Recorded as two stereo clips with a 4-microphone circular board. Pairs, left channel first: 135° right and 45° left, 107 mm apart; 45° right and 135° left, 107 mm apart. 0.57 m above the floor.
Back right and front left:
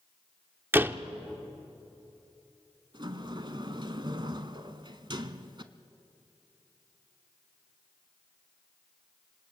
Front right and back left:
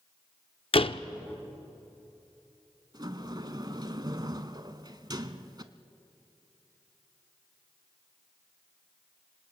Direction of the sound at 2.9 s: 85° left.